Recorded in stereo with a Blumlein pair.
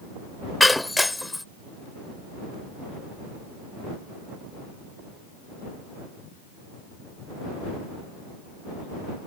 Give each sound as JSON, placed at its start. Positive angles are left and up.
{"t": 0.6, "sound": "breaking glass", "azimuth_deg": 5}